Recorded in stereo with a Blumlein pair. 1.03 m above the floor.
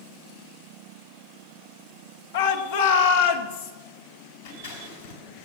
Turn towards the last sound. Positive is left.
turn(degrees=60)